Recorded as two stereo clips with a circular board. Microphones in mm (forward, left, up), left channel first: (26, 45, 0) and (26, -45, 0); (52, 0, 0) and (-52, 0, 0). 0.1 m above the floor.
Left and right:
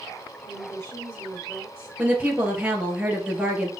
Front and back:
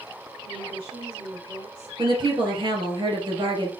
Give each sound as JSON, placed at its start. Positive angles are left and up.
{"t": 0.4, "sound": "a woman speaking", "azimuth_deg": 155, "distance_m": 5.0}
{"t": 2.0, "sound": "a woman speaking", "azimuth_deg": -160, "distance_m": 2.5}